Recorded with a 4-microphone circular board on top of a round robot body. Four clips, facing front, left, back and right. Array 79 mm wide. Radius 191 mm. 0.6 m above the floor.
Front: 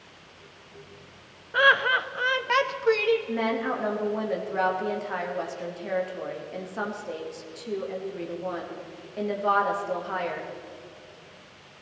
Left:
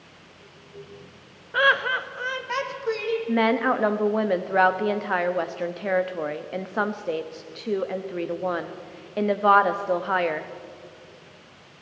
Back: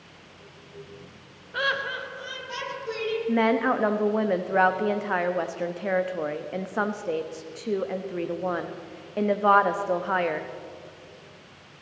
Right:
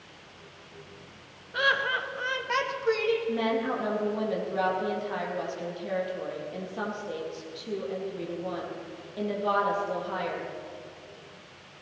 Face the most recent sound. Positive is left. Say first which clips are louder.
# left 6 dB, back 5 dB
turn(degrees=115)